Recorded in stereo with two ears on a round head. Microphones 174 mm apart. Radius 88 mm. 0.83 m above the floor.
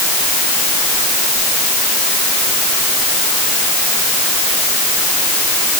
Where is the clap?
I don't hear a clap.